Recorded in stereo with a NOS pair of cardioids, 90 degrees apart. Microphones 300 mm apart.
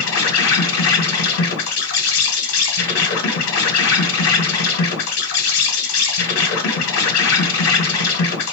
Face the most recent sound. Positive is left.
turn(degrees=60)